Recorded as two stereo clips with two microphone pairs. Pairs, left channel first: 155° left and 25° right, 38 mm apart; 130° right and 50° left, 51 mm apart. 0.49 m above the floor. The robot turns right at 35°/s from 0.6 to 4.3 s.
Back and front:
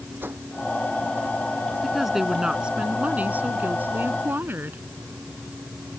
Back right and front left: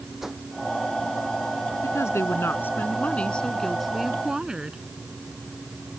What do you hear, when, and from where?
0.2 s a whoosh: 35° right
1.8 s a woman speaking: 110° right; by 4.8 s 25° right